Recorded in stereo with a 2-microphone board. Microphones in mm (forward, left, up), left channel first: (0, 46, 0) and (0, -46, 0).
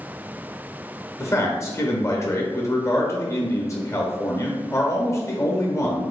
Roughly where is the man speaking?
Left.